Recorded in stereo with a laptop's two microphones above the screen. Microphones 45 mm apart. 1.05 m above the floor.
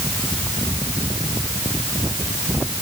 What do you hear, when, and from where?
Only background noise.